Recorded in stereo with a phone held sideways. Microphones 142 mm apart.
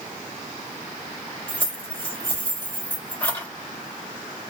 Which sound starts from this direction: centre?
Keys jangling, at 1.5 s.